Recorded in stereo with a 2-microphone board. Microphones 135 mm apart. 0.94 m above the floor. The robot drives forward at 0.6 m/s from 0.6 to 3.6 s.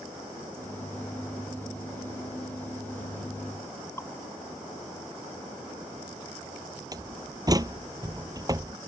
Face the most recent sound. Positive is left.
turn(degrees=-25)  # may be behind; listen again after turning